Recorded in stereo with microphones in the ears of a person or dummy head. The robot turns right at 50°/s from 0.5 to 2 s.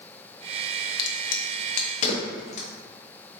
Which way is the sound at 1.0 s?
60° left (ahead or behind).